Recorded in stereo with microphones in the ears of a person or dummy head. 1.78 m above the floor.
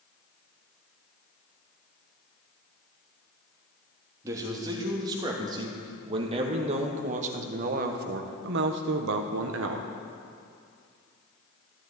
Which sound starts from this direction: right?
A man speaking, at 4.2 s.